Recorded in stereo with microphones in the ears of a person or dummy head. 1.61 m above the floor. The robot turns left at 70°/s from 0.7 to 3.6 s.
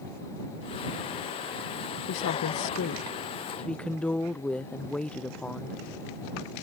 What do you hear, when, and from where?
2.1 s a woman speaking: 110° left; by 5.8 s 5° left